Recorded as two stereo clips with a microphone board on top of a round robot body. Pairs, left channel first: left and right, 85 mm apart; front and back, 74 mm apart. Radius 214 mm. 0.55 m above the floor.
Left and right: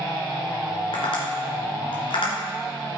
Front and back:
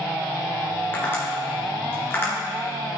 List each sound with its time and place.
0.9 s tapping: 65° left, 1.9 m